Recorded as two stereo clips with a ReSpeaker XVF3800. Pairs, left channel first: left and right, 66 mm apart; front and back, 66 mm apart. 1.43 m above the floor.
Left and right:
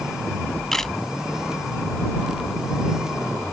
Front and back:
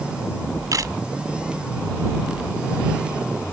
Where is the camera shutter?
175° left.